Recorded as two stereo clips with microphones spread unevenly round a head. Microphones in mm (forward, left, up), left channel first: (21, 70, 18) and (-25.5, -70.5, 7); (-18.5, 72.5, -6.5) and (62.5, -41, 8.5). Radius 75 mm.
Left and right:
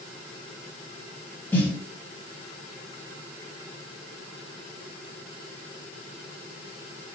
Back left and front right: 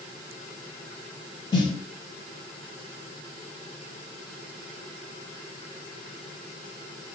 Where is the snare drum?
150° left, 0.8 m.